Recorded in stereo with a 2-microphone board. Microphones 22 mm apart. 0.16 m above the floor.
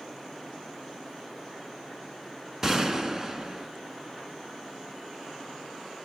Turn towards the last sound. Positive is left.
turn(degrees=-20)  # may be behind; listen again after turning